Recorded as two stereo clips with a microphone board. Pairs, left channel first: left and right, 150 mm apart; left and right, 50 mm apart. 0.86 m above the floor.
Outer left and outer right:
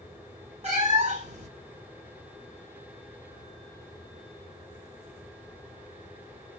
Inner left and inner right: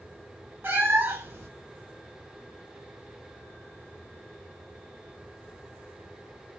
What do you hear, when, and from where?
0.6 s a cat meowing: 45° right (ahead or behind), 1.2 m